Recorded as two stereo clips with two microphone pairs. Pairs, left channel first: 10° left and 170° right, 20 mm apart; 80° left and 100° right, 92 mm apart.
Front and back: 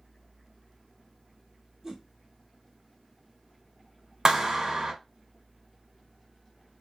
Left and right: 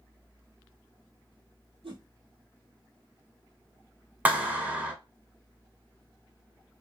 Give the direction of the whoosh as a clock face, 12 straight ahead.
4 o'clock.